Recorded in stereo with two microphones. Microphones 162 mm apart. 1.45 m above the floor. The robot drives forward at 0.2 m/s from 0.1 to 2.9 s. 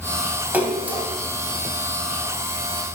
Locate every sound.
0.5 s a splash: 10° right (ahead or behind), 2 m